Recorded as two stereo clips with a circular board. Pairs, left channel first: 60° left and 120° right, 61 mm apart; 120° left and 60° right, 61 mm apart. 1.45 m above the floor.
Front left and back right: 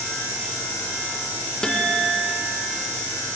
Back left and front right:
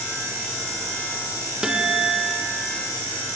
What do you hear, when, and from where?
1.6 s a guitar: straight ahead, 1.2 m